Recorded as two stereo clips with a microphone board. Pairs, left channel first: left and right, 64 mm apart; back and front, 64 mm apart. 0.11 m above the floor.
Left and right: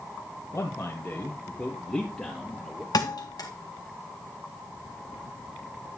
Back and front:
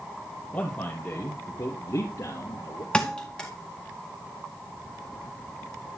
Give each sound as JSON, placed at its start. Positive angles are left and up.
{"t": 0.5, "sound": "a man speaking", "azimuth_deg": 115, "distance_m": 2.0}
{"t": 2.9, "sound": "a thud", "azimuth_deg": 100, "distance_m": 1.9}